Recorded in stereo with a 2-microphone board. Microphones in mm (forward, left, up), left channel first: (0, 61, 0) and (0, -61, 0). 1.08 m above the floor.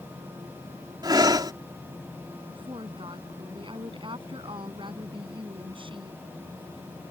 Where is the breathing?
35° right (ahead or behind).